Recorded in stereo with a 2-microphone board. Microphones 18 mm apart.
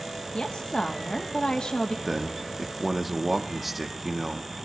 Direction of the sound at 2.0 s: Centre (ahead or behind).